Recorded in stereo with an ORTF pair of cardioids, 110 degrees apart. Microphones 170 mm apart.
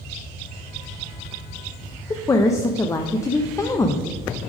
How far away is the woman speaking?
About 0.6 m.